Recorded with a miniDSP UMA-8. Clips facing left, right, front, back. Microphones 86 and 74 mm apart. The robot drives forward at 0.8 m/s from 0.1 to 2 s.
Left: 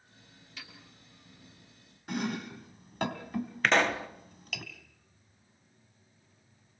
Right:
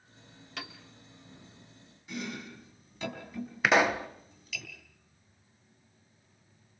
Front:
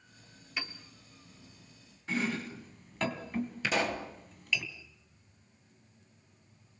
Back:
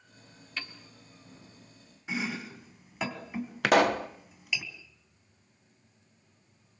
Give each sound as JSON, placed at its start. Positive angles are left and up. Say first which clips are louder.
{"t": 0.6, "sound": "a piano", "louder": "right 7 dB, front 1 dB", "azimuth_deg": -75, "distance_m": 2.0}
{"t": 2.1, "sound": "chopping", "louder": "left 5 dB, front 1 dB", "azimuth_deg": 100, "distance_m": 2.5}
{"t": 3.6, "sound": "a pop", "louder": "right 2 dB, back 11 dB", "azimuth_deg": -170, "distance_m": 1.2}